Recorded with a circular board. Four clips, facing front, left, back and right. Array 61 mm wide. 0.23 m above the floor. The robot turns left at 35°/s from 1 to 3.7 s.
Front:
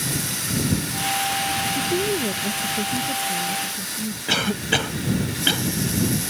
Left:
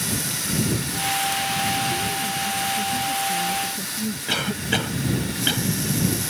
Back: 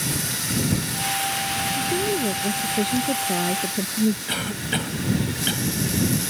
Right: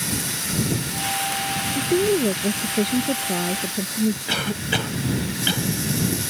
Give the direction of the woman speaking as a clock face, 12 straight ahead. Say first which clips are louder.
Right 5 dB, back 1 dB; 3 o'clock.